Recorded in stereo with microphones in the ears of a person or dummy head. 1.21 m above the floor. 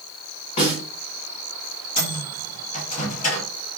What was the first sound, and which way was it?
A snare drum, 35° left (ahead or behind).